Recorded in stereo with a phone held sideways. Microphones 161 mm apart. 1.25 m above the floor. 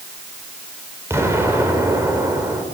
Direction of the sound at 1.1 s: 15° right (ahead or behind).